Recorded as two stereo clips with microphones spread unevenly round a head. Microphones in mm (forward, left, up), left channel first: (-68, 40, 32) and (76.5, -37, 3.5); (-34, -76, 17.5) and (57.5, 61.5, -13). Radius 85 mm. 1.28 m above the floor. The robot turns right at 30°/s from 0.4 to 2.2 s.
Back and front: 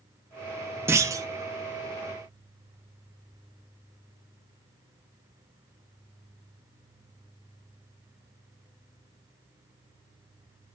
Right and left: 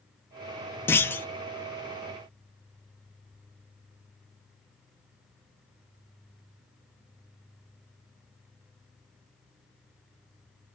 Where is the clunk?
110° right, 0.6 m; by 1.3 s 95° right, 0.6 m.